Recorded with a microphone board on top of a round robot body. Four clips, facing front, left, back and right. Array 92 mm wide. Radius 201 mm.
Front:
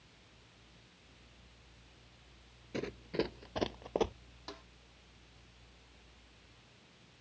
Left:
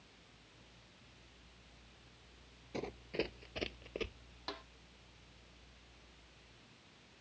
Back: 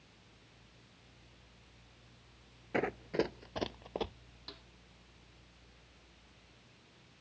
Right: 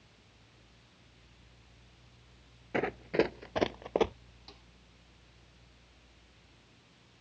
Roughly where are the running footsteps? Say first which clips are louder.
Right 11 dB, back 4 dB; behind right.